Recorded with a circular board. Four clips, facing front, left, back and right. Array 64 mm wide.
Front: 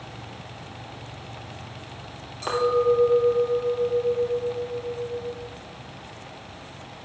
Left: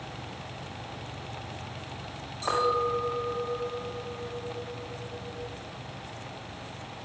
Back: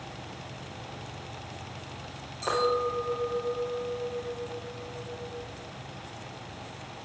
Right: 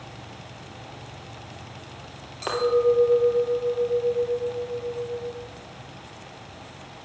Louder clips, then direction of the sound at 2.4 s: Right 5 dB, front 6 dB; 70° right.